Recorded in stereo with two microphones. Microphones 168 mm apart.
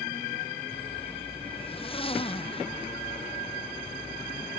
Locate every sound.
0.7 s a zipper: 35° left (ahead or behind)